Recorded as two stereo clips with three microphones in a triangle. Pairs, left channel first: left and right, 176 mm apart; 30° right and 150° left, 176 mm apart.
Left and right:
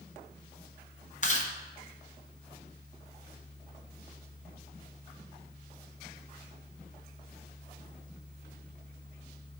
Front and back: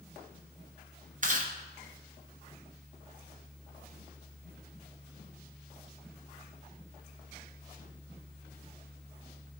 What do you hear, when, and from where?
1.2 s chewing: 125° left, 1.0 m